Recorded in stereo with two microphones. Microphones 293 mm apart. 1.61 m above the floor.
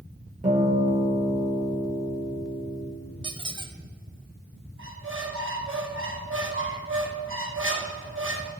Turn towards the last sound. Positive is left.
turn(degrees=-45)  # may be behind; listen again after turning